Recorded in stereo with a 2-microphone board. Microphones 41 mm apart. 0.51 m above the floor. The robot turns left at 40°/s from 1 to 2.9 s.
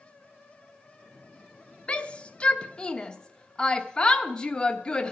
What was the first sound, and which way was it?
A shout, 25° left (ahead or behind).